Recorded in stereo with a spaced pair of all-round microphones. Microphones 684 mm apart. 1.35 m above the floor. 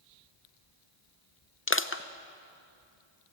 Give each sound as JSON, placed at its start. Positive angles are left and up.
{"t": 1.7, "sound": "crushing", "side_deg": 20, "distance_m": 0.6}